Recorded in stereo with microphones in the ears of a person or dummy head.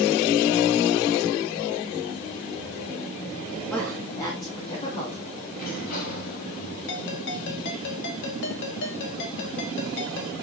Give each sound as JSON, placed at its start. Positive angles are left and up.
{"t": 3.7, "sound": "a woman speaking", "side_deg": 5, "distance_m": 2.5}
{"t": 5.5, "sound": "a sliding door", "side_deg": 50, "distance_m": 7.0}
{"t": 6.9, "sound": "a ringtone", "side_deg": 65, "distance_m": 1.8}